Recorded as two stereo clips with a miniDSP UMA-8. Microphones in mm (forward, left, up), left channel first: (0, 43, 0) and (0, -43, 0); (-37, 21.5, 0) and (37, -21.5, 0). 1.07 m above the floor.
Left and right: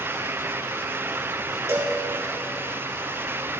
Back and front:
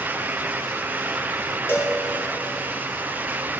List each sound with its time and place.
1.7 s a cowbell: 145° right, 1.8 m